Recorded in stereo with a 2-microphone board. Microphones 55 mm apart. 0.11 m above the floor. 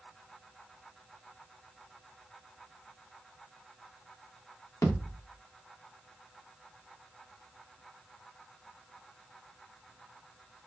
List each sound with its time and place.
4.8 s a thud: 75° left (ahead or behind), 7.5 m